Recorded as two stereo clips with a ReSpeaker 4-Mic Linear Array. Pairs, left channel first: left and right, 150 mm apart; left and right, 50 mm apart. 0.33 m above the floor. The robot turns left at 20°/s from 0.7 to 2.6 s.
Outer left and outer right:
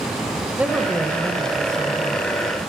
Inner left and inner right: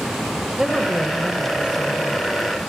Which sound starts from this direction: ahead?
A woman speaking, at 0.6 s.